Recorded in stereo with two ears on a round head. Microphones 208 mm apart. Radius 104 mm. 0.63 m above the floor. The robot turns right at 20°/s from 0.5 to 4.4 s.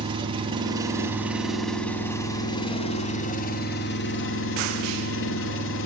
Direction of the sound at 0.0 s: 20° right.